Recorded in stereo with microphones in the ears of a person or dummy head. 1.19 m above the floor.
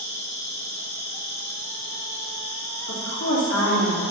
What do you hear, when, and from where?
0.0 s an insect: 35° left (ahead or behind), 1.9 m
2.9 s a woman speaking: 85° left, 1.9 m